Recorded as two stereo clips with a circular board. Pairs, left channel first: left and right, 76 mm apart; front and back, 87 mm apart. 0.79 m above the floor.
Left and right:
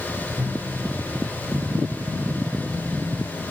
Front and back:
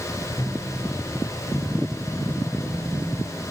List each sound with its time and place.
0.4 s a microwave: 40° right, 4 m